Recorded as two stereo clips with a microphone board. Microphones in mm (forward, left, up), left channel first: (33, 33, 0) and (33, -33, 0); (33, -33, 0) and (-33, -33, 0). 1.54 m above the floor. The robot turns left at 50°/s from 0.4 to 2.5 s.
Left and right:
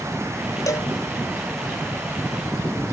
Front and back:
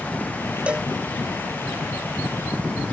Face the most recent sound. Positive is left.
turn(degrees=20)